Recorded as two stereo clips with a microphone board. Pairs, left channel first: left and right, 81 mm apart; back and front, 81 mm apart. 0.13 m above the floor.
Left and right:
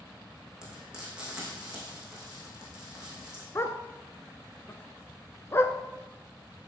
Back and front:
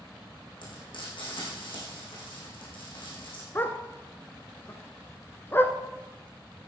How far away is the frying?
About 5 m.